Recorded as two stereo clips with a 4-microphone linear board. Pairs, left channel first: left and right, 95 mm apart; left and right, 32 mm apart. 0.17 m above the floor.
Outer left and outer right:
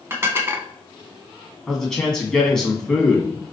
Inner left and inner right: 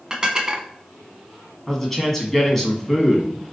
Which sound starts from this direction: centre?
A man speaking, at 1.7 s.